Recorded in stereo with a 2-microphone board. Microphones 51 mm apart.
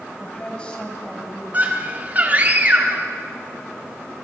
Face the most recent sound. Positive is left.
turn(degrees=-35)  # may be behind; listen again after turning